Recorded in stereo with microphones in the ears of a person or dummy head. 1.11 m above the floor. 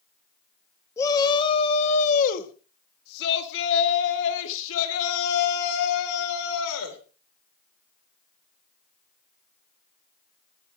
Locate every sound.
1.0 s a shout: 20° left (ahead or behind), 1.4 m; by 7.0 s 85° left, 3.5 m